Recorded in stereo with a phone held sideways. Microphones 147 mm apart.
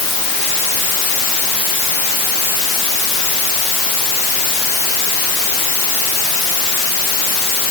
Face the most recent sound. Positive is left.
No sound to turn to.